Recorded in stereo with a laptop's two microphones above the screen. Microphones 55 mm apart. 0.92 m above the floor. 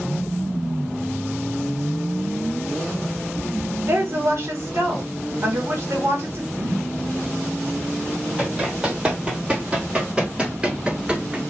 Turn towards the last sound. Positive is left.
turn(degrees=-15)  # may be behind; listen again after turning